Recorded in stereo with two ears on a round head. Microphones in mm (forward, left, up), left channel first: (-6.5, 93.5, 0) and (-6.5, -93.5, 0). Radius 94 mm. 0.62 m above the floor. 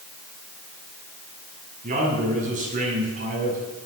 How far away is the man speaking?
About 7 m.